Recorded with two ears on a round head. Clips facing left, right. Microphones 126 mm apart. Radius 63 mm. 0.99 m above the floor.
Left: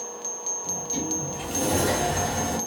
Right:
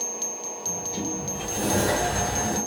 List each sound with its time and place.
0.7 s a sliding door: 60° left (ahead or behind), 1.6 m